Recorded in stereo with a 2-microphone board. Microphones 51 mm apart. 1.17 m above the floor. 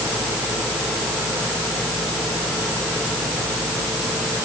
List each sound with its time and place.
Only background noise.